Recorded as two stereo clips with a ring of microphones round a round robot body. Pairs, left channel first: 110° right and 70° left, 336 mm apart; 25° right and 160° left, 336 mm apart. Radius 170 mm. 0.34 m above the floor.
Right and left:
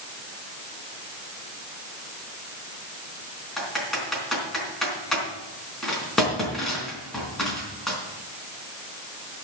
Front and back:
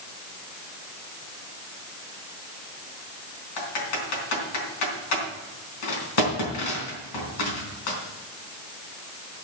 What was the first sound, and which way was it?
Typing on a keyboard, 25° right.